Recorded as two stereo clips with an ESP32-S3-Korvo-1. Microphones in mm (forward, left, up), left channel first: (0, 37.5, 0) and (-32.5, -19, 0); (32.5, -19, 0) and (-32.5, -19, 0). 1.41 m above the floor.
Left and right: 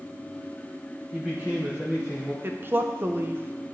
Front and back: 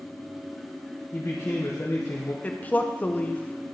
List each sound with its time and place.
1.1 s a man speaking: 45° right, 1.1 m
2.4 s a woman speaking: 65° right, 0.7 m